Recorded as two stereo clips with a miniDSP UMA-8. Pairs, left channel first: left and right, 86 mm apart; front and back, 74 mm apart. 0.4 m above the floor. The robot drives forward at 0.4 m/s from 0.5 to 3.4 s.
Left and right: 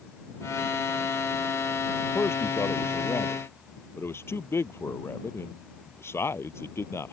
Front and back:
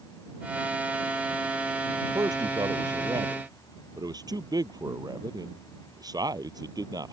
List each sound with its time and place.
2.1 s a man speaking: 150° left